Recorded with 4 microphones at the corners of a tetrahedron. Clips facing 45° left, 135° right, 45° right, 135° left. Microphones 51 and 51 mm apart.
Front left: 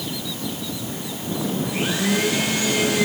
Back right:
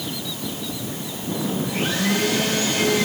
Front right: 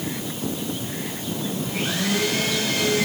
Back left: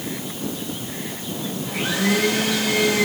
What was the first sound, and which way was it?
A blender, 125° left.